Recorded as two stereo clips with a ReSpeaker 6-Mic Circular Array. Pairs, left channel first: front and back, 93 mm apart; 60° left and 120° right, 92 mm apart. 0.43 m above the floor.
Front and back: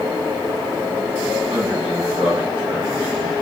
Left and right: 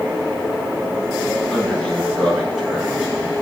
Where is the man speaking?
140° left, 6 m; by 3.3 s 160° left, 7 m.